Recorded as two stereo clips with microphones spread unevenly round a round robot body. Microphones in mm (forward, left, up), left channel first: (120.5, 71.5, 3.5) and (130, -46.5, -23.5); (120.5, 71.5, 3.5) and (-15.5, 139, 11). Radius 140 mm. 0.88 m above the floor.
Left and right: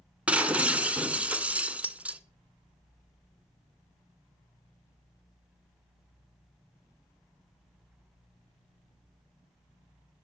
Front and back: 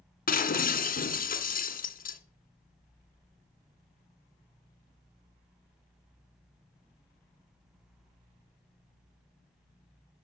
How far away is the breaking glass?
About 2.5 m.